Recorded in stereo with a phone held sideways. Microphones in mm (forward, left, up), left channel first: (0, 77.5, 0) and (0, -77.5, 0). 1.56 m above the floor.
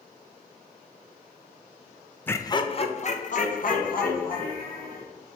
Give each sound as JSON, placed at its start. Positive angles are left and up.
{"t": 2.3, "sound": "laughter", "side_deg": 10, "distance_m": 0.6}